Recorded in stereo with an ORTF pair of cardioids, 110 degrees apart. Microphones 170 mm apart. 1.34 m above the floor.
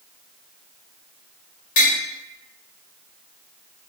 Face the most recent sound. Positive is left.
turn(degrees=60)